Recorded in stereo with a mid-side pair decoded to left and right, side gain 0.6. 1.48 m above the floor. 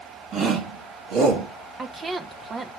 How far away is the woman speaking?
About 1.1 m.